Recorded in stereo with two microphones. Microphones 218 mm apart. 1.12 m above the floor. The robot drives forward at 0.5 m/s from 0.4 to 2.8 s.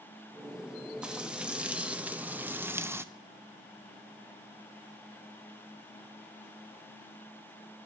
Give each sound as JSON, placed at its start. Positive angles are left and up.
{"t": 1.0, "sound": "frying", "side_deg": -5, "distance_m": 1.5}